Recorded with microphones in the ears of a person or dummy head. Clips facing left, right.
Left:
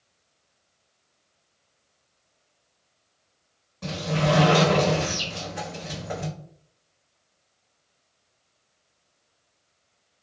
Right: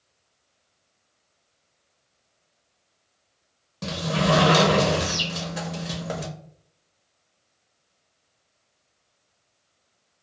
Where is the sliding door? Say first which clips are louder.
Right 1 dB; 55° right (ahead or behind), 0.8 m.